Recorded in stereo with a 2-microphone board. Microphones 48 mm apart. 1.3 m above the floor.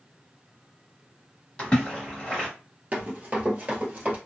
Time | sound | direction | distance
1.6 | a splash | 20° left (ahead or behind) | 1.2 m
2.9 | running footsteps | 30° right (ahead or behind) | 1.5 m